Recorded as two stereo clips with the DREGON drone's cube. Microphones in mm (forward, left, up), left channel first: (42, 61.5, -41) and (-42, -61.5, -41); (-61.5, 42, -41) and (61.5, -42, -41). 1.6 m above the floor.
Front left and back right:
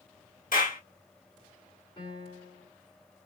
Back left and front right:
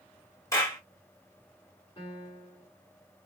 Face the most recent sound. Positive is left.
turn(degrees=105)